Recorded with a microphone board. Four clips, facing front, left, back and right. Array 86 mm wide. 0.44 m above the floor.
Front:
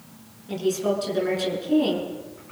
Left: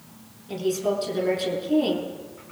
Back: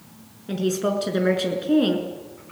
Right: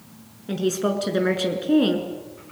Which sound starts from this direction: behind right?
A woman speaking, at 0.5 s.